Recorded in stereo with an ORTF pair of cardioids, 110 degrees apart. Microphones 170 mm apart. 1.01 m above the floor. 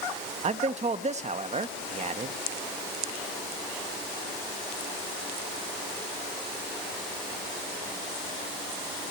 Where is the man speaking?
40° right, 1.2 m.